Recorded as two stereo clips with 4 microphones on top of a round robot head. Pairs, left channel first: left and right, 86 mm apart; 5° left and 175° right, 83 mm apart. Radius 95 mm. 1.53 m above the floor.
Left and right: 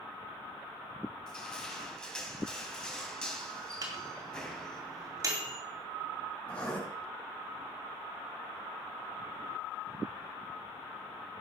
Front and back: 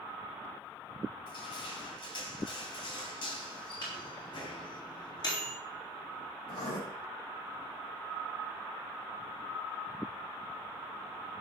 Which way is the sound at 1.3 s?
10° left.